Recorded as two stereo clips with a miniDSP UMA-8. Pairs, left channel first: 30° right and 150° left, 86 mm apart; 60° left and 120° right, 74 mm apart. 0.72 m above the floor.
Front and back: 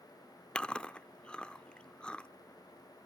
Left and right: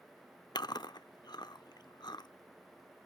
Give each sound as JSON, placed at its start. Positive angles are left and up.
{"t": 0.6, "sound": "chewing", "azimuth_deg": 45, "distance_m": 0.6}